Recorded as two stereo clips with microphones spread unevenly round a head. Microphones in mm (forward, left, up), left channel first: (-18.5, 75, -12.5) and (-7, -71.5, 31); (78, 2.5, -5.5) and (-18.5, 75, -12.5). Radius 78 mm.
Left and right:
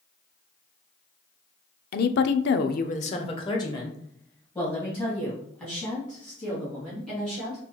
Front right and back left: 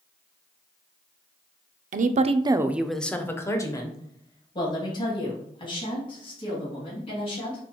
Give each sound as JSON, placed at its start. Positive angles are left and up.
{"t": 1.9, "sound": "a woman speaking", "azimuth_deg": 125, "distance_m": 0.5}